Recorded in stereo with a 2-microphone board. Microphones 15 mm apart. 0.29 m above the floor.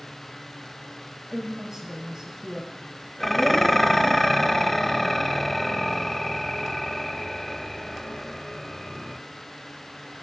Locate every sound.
1.3 s a woman speaking: 25° right (ahead or behind), 1.4 m
3.2 s dishes clattering: 15° left (ahead or behind), 0.6 m